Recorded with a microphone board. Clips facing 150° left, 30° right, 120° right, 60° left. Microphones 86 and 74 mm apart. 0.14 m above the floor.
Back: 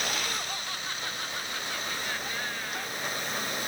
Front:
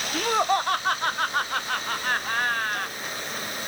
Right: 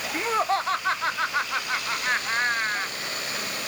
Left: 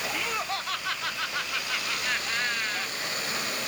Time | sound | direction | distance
0.1 | laughter | 65° right | ?